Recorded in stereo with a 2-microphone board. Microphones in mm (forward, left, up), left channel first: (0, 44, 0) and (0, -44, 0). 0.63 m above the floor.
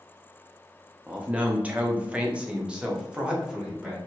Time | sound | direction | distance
1.1 | a man speaking | 15° right (ahead or behind) | 0.6 m